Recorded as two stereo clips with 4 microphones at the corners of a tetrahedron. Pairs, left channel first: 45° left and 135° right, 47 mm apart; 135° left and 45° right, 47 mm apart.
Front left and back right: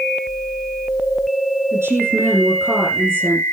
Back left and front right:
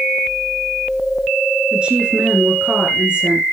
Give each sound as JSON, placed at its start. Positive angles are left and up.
{"t": 1.7, "sound": "a woman speaking", "azimuth_deg": -110, "distance_m": 5.0}